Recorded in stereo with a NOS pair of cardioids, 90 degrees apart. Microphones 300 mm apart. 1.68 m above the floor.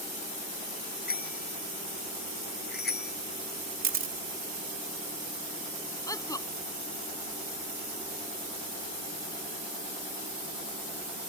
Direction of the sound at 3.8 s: 45° right.